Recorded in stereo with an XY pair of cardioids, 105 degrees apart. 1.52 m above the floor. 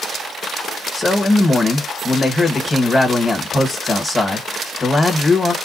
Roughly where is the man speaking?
Ahead.